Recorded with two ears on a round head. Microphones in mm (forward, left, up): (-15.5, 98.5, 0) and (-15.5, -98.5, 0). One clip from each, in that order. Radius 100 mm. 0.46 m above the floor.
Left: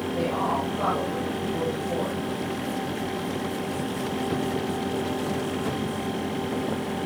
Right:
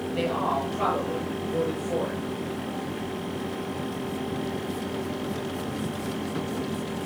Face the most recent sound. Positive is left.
turn(degrees=-70)  # may be behind; listen again after turning